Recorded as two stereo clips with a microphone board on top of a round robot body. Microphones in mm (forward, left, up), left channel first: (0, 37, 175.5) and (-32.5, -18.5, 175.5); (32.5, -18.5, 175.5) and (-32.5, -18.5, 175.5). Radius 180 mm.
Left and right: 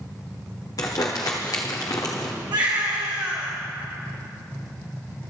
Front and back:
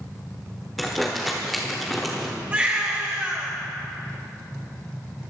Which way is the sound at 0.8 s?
90° left.